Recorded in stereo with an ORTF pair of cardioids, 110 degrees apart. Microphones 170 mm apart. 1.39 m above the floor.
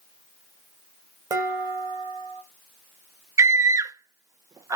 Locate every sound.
1.3 s dishes clattering: 20° right, 1.8 m
3.4 s a scream: 20° right, 0.6 m